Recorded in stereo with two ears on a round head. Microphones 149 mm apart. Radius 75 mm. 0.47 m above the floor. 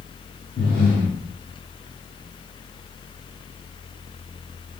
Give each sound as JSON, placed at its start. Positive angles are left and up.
{"t": 0.6, "sound": "breathing", "side_deg": 30, "distance_m": 1.3}